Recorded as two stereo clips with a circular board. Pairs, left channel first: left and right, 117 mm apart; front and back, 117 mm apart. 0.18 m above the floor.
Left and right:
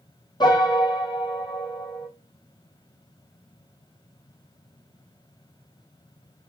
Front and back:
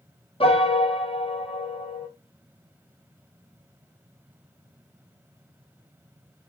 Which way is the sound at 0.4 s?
40° left.